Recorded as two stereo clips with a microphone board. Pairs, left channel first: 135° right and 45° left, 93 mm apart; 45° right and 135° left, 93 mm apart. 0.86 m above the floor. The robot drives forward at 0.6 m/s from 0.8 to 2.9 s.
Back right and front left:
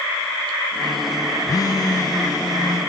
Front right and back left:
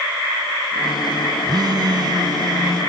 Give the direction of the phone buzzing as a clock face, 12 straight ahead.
6 o'clock.